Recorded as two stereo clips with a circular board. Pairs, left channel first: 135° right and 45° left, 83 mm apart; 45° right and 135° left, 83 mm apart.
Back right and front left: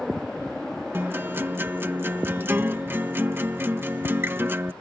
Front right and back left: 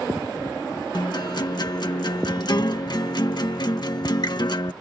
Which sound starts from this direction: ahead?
A guitar, at 0.9 s.